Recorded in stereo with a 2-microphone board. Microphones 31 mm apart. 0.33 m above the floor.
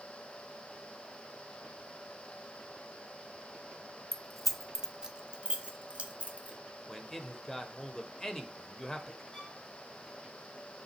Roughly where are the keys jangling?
Centre.